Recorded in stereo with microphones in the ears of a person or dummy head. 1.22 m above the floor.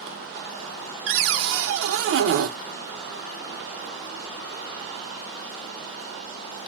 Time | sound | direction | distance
1.1 | a cupboard door | 75° right (ahead or behind) | 0.6 m